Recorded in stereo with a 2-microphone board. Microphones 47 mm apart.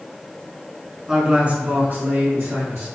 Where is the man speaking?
10° right (ahead or behind), 1.3 m; by 2.9 s 45° right (ahead or behind), 2 m.